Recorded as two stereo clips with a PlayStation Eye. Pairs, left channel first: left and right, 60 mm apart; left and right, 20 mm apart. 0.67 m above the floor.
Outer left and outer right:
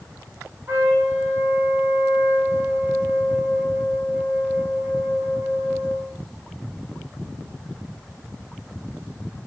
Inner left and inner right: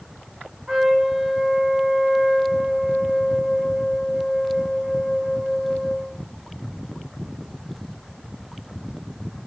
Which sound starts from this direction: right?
A trumpet, at 0.7 s.